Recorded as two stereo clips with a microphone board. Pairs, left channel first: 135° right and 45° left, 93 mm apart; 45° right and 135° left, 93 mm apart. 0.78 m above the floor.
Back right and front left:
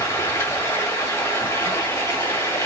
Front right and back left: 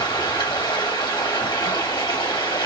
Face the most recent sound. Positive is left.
turn(degrees=-75)